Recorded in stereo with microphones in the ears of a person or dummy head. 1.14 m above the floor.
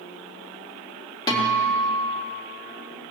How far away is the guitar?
About 3.5 m.